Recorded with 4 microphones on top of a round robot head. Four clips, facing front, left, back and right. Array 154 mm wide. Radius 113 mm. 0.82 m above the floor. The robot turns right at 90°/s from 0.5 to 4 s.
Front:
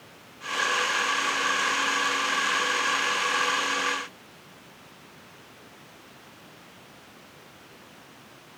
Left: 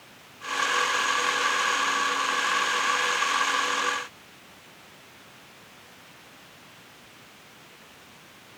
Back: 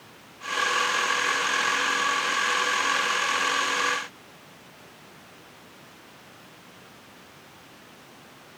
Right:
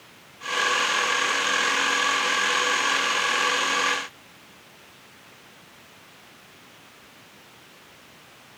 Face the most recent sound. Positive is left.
No sound to turn to.